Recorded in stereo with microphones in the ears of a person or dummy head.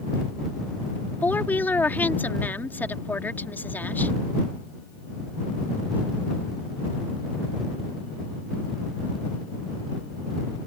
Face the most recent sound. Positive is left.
turn(degrees=5)  # may be behind; listen again after turning